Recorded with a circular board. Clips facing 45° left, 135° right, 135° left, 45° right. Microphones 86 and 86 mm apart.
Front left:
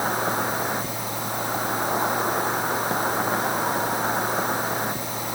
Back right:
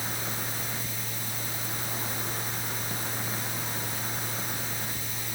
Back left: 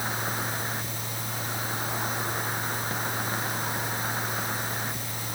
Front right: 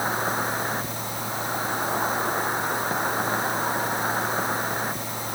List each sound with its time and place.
0.0 s an insect: 15° left